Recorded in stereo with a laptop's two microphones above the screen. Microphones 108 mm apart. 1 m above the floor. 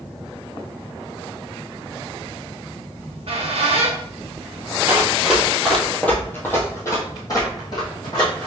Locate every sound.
3.0 s a squeak: 65° right (ahead or behind), 0.7 m
4.9 s running footsteps: 15° right (ahead or behind), 1.0 m; by 8.5 s 45° left (ahead or behind), 2.0 m